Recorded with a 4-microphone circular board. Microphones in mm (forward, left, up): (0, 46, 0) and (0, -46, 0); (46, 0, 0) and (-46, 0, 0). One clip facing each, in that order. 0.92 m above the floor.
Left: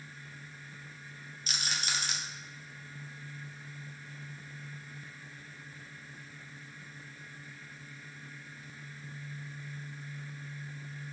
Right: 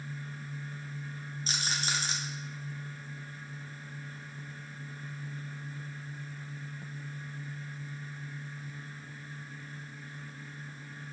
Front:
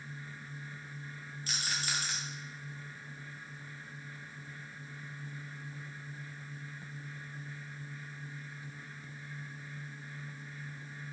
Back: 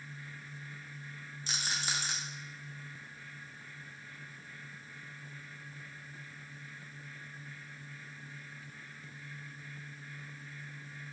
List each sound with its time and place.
1.5 s a rattle: 125° right, 0.6 m